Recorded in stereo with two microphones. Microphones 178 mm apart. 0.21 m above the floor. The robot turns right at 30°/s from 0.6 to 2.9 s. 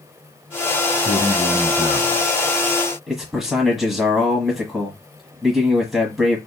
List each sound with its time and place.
0.9 s a man speaking: 25° right, 1.6 m; by 2.3 s 15° left, 1.6 m
3.1 s a man speaking: centre (ahead or behind), 1.3 m